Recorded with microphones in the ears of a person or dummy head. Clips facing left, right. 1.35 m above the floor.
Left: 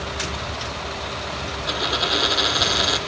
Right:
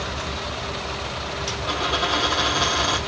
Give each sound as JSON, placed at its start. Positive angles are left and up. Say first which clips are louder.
{"t": 1.7, "sound": "a dropped coin", "louder": "even", "side_deg": 20, "distance_m": 2.5}